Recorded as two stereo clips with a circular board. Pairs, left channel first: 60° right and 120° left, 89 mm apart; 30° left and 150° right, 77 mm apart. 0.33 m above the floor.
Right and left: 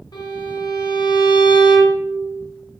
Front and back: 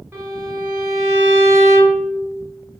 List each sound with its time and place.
0.1 s a violin: 90° right, 1.7 m